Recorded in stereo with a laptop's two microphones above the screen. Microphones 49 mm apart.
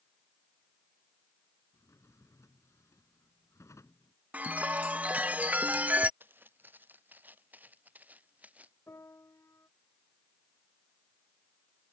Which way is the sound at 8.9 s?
65° left (ahead or behind).